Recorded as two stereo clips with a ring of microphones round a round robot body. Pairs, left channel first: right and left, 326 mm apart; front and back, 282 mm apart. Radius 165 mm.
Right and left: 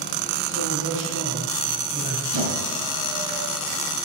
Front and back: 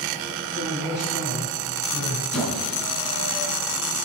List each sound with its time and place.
0.5 s a man speaking: 125° left, 4.5 m
2.3 s a squeak: 90° left, 4 m